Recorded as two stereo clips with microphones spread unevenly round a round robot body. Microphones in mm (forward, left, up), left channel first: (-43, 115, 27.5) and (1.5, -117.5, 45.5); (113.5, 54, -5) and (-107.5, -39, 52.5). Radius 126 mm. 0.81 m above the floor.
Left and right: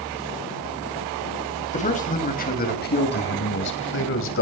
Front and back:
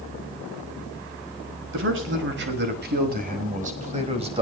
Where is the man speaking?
160° left, 5.5 m; by 4.4 s 130° left, 5.5 m.